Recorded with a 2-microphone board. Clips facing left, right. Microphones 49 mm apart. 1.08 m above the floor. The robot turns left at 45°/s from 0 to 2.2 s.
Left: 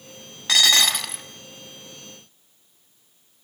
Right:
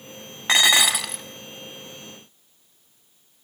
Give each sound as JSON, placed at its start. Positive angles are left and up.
{"t": 0.5, "sound": "dishes clattering", "azimuth_deg": -150, "distance_m": 1.1}